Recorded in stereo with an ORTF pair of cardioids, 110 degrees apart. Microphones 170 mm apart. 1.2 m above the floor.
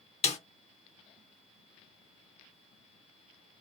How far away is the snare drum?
About 0.8 m.